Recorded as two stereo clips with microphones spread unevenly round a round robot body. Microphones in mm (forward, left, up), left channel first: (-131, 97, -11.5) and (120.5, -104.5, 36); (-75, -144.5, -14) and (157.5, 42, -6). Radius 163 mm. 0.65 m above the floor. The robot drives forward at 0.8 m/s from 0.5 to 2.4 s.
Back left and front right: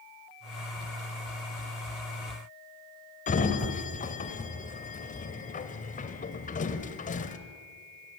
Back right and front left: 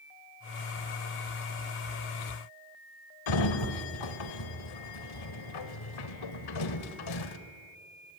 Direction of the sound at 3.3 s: 150° right.